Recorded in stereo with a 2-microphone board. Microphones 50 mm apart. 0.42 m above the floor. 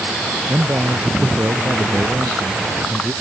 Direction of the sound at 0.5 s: 55° right (ahead or behind).